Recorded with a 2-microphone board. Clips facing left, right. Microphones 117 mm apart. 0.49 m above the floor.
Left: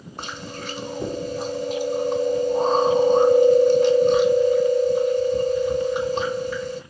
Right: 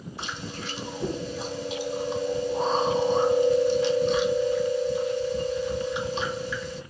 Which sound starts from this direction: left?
Chewing, at 0.2 s.